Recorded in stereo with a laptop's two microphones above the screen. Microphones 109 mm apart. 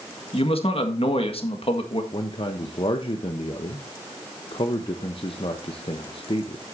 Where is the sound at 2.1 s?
55° left (ahead or behind), 0.8 m.